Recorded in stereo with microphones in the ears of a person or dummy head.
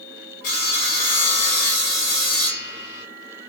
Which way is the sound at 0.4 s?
60° left (ahead or behind).